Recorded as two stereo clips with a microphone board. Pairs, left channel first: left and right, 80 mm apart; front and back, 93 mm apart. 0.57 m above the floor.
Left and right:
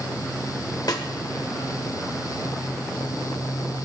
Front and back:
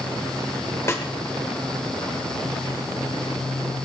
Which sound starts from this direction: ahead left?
A snare drum, at 0.9 s.